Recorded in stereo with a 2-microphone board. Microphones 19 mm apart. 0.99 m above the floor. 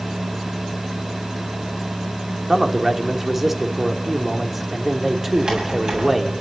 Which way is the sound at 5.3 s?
60° right (ahead or behind).